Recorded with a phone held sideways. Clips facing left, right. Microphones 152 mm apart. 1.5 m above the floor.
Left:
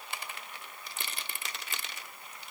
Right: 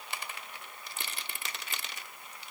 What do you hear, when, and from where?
Only background noise.